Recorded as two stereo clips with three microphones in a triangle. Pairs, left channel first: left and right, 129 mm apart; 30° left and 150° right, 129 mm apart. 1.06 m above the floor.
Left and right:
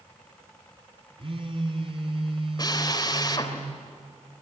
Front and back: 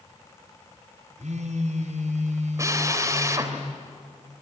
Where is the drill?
145° left, 3 m.